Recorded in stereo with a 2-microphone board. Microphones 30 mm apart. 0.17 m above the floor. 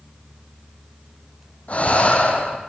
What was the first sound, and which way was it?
Breathing, 50° left (ahead or behind).